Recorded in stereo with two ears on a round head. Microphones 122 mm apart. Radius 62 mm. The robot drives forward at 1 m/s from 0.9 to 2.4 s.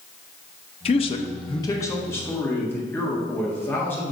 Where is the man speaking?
45° left (ahead or behind), 0.6 m; by 4.1 s 15° left (ahead or behind), 1.6 m.